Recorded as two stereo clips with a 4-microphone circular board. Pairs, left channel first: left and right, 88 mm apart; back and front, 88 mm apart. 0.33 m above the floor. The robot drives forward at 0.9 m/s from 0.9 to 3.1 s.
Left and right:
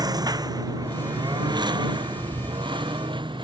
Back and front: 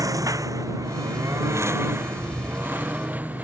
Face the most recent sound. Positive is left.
turn(degrees=-70)